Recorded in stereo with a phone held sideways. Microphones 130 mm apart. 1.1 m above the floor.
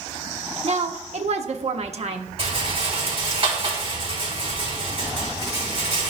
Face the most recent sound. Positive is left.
turn(degrees=-45)  # may be behind; listen again after turning